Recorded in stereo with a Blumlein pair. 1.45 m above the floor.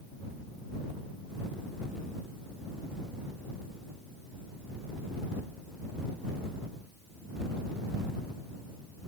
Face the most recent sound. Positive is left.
No sound to turn to.